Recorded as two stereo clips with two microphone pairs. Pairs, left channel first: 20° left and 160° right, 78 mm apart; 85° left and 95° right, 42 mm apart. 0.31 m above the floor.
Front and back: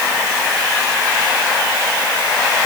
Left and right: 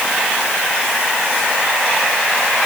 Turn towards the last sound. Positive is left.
No sound to turn to.